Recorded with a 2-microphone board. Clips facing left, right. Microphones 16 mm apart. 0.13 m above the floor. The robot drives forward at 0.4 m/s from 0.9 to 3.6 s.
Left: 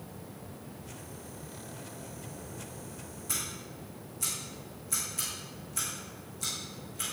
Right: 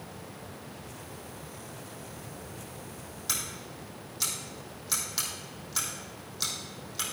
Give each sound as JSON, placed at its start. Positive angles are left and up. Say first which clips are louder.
{"t": 3.3, "sound": "scissors", "louder": "right 3 dB", "side_deg": -75, "distance_m": 3.5}